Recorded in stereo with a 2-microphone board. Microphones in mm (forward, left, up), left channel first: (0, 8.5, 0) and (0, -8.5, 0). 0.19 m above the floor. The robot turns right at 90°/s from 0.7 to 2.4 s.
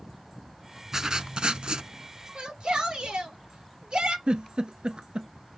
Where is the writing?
150° right, 0.6 m; by 1.9 s 60° right, 0.6 m.